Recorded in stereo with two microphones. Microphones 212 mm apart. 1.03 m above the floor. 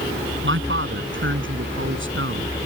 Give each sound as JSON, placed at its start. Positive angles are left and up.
{"t": 0.4, "sound": "a man speaking", "side_deg": -70}